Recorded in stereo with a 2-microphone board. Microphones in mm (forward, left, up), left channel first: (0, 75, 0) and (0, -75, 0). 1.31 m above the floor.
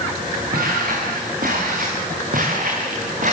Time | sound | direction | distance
0.5 | footsteps | 75° right (ahead or behind) | 8 m